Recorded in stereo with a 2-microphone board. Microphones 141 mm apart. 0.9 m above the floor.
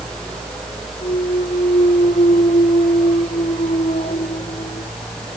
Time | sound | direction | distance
1.0 | a clunk | 70° left (ahead or behind) | ?